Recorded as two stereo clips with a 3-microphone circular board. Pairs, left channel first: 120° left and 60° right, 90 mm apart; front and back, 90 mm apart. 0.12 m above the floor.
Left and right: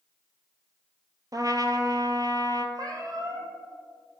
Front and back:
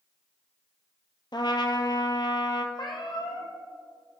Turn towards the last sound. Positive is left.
turn(degrees=-20)